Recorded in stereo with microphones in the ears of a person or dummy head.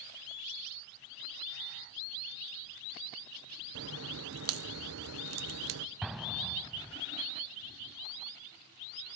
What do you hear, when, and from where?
3.8 s a crack: 65° right (ahead or behind), 0.9 m
6.0 s an explosion: 5° right (ahead or behind), 1.8 m